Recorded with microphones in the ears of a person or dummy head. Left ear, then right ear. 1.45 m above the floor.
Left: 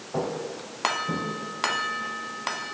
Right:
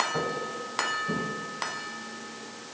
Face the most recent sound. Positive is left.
turn(degrees=-5)  # may be behind; listen again after turning